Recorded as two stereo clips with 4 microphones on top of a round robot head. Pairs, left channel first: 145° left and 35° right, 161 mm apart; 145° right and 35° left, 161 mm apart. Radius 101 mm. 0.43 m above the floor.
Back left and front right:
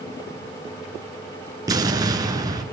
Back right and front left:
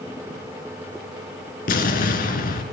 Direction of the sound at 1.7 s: 105° right.